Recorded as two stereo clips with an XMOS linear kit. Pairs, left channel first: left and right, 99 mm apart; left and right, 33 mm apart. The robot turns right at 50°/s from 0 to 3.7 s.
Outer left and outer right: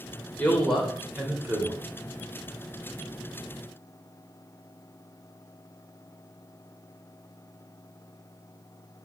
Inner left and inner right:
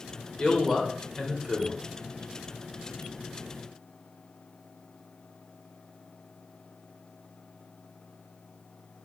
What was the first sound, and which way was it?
A man speaking, 155° left.